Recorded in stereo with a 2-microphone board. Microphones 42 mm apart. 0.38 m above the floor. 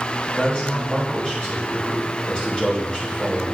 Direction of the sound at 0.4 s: 25° left (ahead or behind).